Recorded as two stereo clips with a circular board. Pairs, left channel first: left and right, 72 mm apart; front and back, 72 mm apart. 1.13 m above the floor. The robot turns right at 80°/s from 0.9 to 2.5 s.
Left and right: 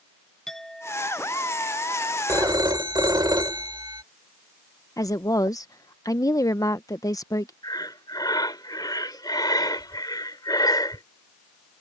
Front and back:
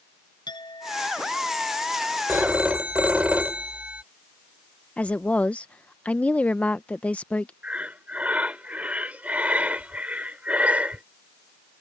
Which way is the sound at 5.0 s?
70° left.